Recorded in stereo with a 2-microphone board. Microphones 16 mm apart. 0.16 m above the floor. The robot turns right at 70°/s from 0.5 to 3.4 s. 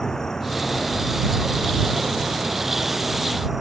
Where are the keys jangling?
I don't hear keys jangling.